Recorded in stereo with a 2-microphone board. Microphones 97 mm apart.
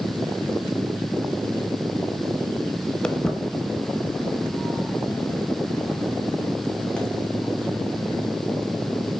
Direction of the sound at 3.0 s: 10° left (ahead or behind).